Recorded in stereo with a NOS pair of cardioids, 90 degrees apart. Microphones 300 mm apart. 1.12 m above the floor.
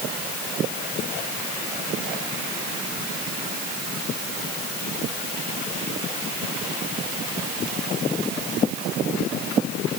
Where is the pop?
No pop in this recording.